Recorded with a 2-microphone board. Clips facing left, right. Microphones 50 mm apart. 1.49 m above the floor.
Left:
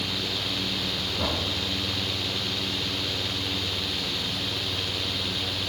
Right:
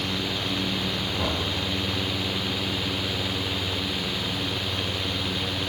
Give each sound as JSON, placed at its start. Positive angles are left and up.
{"t": 1.2, "sound": "knocking", "side_deg": -30, "distance_m": 4.5}